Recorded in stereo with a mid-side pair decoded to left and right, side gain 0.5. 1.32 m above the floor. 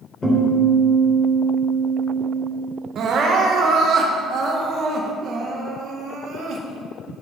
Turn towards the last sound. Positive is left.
turn(degrees=-60)